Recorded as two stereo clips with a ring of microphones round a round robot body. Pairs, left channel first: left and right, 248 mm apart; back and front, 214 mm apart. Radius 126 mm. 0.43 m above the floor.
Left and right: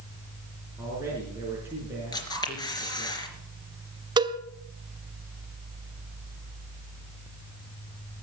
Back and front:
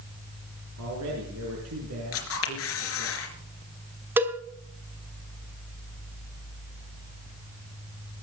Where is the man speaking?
10° right, 5 m.